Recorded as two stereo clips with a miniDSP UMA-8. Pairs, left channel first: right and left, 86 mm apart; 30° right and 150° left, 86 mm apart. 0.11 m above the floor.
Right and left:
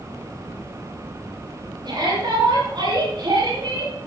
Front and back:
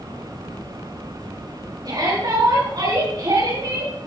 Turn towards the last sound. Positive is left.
turn(degrees=125)